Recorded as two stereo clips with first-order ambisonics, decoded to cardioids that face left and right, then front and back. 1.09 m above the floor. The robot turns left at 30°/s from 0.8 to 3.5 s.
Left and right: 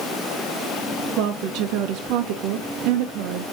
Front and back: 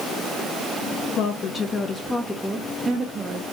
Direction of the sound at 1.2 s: 50° right.